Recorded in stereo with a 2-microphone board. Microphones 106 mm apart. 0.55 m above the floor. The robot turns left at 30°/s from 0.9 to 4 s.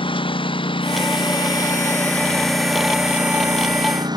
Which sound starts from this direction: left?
A lawn mower, at 0.0 s.